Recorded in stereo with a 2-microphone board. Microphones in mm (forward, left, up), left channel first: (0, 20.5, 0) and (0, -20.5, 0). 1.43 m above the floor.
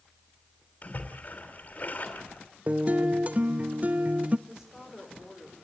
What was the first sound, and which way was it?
A splash, 40° left (ahead or behind).